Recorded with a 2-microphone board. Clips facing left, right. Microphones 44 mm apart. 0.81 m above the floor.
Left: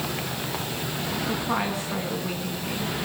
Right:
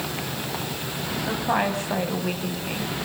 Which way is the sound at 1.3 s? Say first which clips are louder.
Right 5 dB; 70° right (ahead or behind).